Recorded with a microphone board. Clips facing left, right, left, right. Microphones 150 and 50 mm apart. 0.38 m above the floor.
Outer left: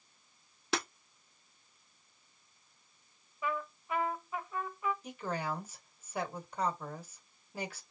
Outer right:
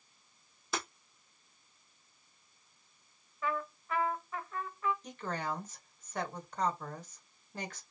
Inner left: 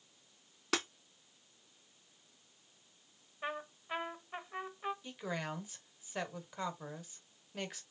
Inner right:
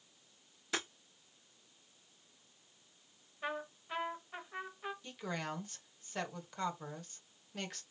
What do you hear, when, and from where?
0.7 s breaking glass: 75° left (ahead or behind), 2 m
3.4 s a trumpet: 15° left (ahead or behind), 1.0 m
5.0 s a woman speaking: 10° left (ahead or behind), 1.3 m